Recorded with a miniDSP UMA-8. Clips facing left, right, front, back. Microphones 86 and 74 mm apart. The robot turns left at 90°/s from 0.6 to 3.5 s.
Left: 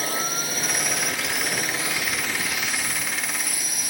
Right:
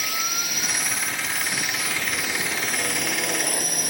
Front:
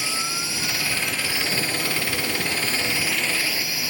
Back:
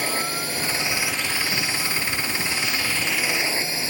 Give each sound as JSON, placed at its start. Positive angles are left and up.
{"t": 0.0, "sound": "a drone", "azimuth_deg": 140}